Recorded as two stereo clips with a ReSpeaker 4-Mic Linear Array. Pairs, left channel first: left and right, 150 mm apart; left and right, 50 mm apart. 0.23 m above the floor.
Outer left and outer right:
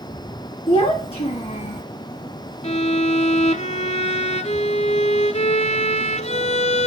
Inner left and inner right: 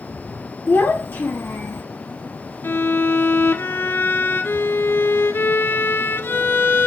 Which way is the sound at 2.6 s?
45° left (ahead or behind).